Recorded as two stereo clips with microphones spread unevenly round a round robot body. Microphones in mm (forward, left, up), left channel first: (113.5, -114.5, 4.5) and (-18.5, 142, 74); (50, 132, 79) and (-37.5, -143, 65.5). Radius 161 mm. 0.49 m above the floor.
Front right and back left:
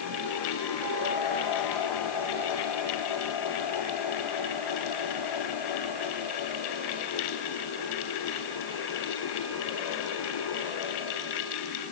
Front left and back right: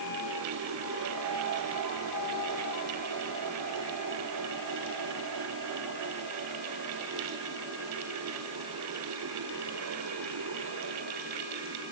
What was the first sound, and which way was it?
Only background noise.